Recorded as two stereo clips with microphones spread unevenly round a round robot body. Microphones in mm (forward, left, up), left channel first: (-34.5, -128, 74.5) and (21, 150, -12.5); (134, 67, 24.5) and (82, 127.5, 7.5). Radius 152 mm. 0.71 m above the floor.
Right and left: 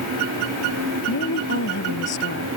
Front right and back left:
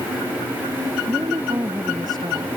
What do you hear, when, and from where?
1.1 s a woman speaking: 155° right